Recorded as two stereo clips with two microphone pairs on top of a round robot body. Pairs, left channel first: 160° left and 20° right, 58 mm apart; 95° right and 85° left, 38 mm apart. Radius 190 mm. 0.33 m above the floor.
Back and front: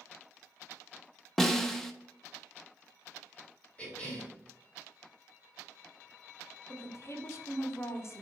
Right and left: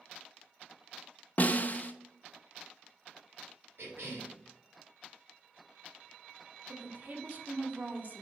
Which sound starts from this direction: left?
A cough, at 3.8 s.